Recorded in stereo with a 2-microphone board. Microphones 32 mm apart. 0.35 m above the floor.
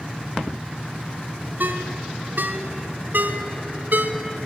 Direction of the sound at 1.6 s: 65° right (ahead or behind).